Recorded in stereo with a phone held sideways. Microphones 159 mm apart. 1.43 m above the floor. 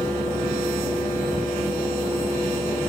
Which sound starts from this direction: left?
A fan, at 0.0 s.